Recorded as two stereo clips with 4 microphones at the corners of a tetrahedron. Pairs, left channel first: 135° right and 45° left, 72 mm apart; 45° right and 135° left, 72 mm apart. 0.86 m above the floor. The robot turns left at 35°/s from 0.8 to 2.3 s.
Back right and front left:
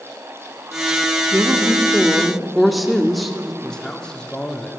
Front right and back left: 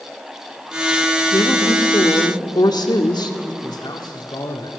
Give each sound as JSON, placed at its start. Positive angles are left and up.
{"t": 1.3, "sound": "a woman speaking", "azimuth_deg": -10, "distance_m": 1.9}
{"t": 3.6, "sound": "a man speaking", "azimuth_deg": -55, "distance_m": 2.0}